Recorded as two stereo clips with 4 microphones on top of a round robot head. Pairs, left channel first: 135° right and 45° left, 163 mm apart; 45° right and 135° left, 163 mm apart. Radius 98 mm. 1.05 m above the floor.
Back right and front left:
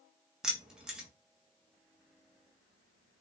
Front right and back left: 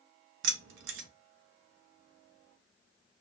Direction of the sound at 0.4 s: 135° left.